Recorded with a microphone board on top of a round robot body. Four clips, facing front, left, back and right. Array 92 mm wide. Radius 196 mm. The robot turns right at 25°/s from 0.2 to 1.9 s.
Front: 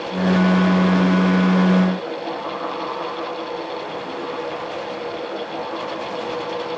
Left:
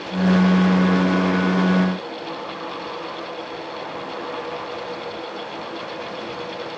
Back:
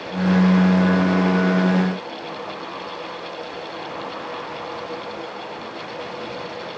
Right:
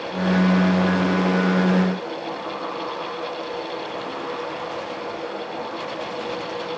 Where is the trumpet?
No trumpet in this recording.